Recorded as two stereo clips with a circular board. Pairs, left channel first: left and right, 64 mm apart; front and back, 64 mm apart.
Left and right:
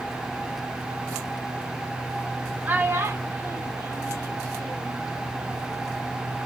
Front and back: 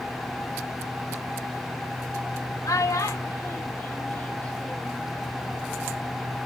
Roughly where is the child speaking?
Ahead right.